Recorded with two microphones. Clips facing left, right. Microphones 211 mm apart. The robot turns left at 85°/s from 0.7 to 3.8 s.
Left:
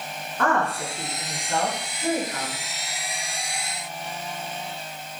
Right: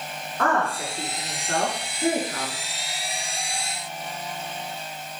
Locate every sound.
0.4 s a woman speaking: centre (ahead or behind), 4 m; by 2.6 s 20° right (ahead or behind), 4 m